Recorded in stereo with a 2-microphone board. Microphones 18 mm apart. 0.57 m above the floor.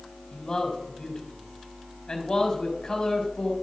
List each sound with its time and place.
0.3 s a man speaking: 35° left (ahead or behind), 3 m